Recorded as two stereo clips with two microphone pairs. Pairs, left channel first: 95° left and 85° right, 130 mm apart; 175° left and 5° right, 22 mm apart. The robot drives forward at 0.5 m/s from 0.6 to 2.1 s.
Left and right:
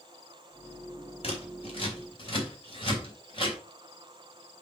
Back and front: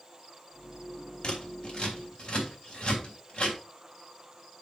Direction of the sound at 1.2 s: 135° left.